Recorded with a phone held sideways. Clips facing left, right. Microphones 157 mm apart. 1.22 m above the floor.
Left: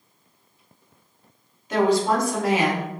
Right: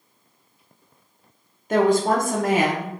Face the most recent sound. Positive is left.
turn(degrees=-50)  # may be behind; listen again after turning